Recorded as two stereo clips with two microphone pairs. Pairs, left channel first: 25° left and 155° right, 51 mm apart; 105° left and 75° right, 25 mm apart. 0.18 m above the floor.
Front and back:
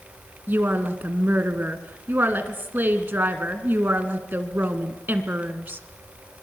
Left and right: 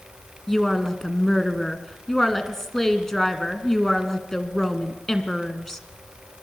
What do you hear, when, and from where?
0.5 s a woman speaking: 175° left, 1.8 m